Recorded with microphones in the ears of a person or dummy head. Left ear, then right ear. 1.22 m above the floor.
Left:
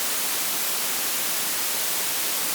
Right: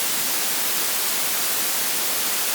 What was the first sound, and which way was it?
Only background noise.